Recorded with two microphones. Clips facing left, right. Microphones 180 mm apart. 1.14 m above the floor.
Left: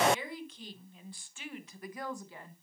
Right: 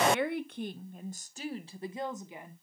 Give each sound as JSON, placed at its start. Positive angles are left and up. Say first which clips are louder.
{"t": 0.1, "sound": "a woman speaking", "louder": "right 4 dB", "side_deg": -65, "distance_m": 1.1}